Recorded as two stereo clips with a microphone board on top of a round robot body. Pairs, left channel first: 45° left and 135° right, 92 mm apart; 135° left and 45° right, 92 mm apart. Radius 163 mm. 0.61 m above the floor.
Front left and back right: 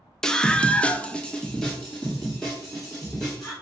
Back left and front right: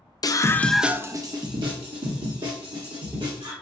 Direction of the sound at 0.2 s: 125° left.